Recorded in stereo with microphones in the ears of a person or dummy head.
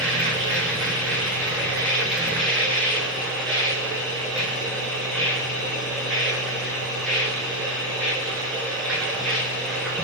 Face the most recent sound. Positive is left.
turn(degrees=0)  # may be behind; listen again after turning